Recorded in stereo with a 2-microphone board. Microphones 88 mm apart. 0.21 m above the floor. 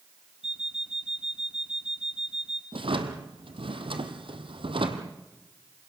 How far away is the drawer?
About 2 m.